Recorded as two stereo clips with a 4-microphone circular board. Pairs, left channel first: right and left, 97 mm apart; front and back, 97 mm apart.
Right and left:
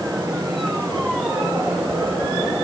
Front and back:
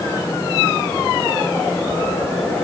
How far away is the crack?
No crack in this recording.